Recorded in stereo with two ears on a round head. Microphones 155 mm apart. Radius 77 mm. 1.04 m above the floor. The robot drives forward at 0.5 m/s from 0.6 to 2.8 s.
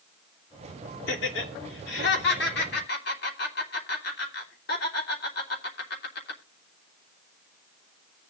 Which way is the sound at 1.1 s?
75° left (ahead or behind).